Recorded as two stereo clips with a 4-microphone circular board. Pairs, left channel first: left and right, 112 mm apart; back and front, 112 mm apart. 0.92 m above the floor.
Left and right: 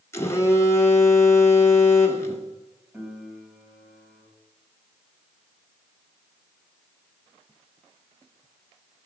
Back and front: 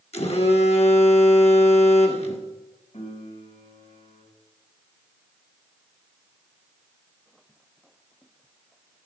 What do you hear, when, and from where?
0.1 s a phone buzzing: 155° left, 1.5 m
2.9 s a piano: 170° right, 4 m